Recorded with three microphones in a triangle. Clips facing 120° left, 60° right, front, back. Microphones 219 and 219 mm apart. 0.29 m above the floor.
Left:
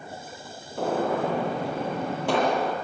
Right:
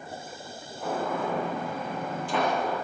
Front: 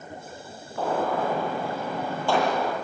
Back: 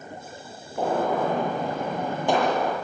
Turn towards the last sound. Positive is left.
turn(degrees=105)